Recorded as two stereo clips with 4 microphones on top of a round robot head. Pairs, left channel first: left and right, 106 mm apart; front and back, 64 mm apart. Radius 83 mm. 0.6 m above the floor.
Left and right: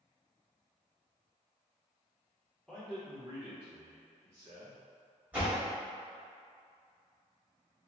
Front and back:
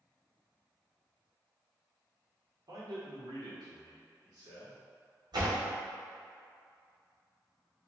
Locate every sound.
2.7 s a man speaking: 175° left, 1.7 m; by 4.8 s 150° right, 2.5 m
5.3 s a door slam: 170° right, 1.8 m